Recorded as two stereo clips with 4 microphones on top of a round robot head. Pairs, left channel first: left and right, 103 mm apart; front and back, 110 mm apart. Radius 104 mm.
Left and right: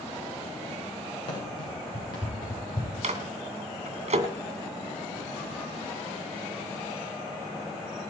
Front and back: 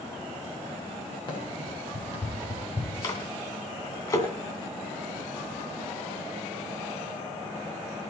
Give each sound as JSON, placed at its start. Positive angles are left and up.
{"t": 1.3, "sound": "running footsteps", "azimuth_deg": 50, "distance_m": 7.5}
{"t": 3.0, "sound": "a microwave", "azimuth_deg": -65, "distance_m": 2.5}